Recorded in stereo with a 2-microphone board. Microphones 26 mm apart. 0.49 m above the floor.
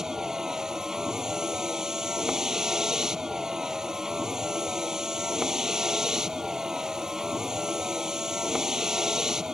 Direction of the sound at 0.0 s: 25° right (ahead or behind).